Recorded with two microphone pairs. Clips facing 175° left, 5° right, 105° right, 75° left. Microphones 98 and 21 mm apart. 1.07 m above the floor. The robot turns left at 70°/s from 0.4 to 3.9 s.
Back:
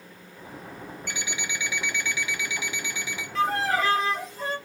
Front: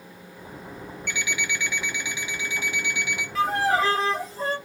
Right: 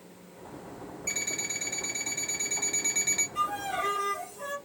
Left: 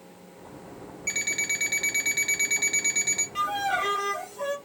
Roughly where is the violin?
Left.